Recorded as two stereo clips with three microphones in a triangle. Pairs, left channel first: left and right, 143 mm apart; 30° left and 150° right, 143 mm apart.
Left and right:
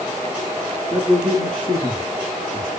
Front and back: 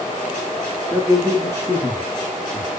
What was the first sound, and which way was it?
A man speaking, 105° left.